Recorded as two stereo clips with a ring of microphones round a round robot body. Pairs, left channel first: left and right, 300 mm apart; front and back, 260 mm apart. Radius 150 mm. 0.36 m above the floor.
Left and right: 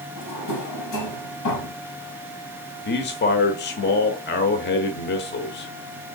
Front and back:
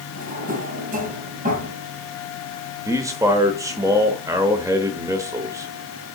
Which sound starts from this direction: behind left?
A drawer, at 0.2 s.